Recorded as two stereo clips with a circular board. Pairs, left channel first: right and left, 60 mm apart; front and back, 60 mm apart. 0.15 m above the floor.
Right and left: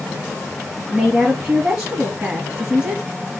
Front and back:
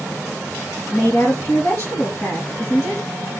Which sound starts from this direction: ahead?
A woman speaking, at 0.9 s.